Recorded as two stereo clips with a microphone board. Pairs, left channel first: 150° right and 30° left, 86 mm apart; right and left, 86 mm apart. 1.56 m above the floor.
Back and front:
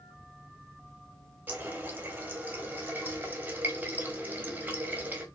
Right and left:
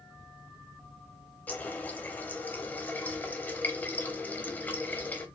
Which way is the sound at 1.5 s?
30° right.